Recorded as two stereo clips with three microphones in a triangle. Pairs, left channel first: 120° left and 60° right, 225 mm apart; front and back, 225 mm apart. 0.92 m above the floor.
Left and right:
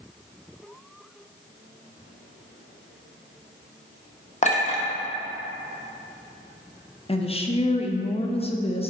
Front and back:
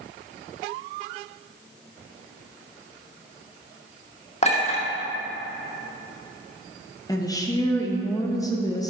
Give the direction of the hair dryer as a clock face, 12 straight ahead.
No hair dryer in this recording.